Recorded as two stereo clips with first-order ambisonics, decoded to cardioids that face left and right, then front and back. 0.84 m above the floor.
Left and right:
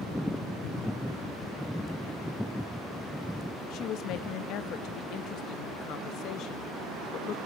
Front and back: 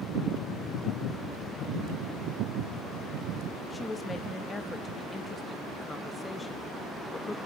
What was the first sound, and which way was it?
A woman speaking, 75° left.